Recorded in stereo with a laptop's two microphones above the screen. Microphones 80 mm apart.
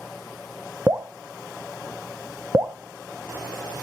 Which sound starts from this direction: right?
Dripping, at 0.9 s.